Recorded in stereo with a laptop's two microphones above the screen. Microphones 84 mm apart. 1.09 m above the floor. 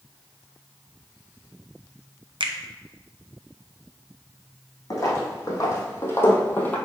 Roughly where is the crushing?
I don't hear crushing.